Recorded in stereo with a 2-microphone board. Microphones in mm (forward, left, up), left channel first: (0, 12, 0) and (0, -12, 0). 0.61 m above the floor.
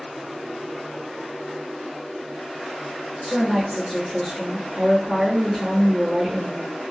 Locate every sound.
3.2 s a woman speaking: centre (ahead or behind), 1.5 m